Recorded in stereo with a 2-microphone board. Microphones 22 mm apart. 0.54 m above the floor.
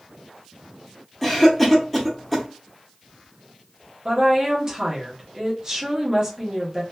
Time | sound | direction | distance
1.2 | a cough | 15° left (ahead or behind) | 0.7 m
4.0 | a woman speaking | 25° right (ahead or behind) | 0.9 m